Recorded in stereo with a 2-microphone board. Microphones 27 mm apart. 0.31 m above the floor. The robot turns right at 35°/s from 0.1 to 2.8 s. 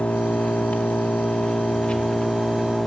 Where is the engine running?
80° left, 1.2 m; by 2.9 s 170° left, 1.2 m.